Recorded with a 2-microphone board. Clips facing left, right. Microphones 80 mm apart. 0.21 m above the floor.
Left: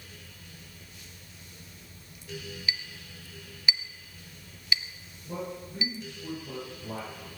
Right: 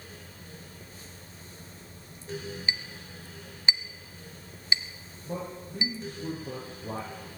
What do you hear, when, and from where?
2.7 s a clink: 25° right (ahead or behind), 0.9 m
5.2 s a man speaking: 40° right (ahead or behind), 6.5 m